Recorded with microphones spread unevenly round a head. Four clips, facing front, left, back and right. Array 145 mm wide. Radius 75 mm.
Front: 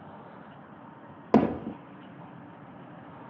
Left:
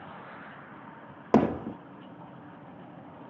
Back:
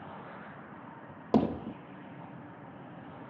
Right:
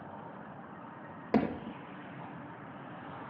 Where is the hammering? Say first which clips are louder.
Left 7 dB, front 5 dB; 65° left.